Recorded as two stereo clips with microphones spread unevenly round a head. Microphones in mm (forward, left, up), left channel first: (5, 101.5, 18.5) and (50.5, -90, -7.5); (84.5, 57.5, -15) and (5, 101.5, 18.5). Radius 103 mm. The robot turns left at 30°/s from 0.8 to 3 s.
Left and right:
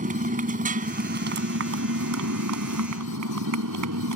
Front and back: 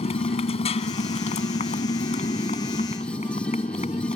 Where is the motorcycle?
25° right; by 4.2 s 90° right.